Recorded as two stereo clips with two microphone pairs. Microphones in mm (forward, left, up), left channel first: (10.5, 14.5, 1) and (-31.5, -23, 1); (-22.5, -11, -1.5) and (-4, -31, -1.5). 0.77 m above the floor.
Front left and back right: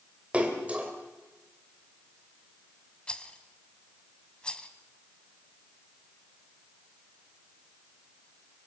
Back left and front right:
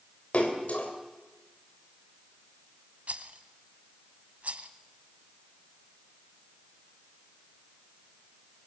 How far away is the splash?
About 3.5 m.